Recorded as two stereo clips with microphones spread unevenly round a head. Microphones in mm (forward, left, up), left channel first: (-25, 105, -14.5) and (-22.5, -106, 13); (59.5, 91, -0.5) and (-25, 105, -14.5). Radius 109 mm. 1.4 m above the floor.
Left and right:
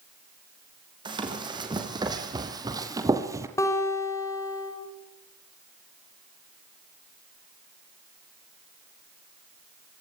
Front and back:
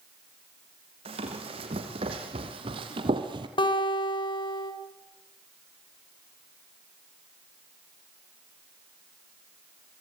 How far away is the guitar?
About 5.5 m.